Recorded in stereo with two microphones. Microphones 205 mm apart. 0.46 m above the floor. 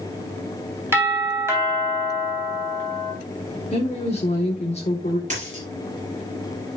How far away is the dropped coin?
About 3.5 m.